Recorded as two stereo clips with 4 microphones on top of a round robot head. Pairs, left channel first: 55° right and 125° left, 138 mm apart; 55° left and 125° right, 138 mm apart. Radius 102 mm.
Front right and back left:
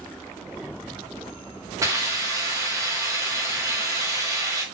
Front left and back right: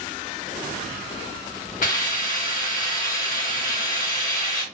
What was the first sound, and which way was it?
A hiss, 60° left.